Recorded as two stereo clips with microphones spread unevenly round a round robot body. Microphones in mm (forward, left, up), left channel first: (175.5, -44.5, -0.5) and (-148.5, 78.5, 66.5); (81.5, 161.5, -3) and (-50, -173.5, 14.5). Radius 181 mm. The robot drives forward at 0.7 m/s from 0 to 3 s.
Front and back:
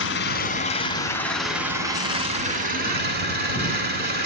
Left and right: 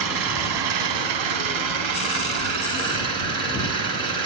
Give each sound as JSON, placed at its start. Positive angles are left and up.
{"t": 0.0, "sound": "an engine running", "azimuth_deg": -75, "distance_m": 1.8}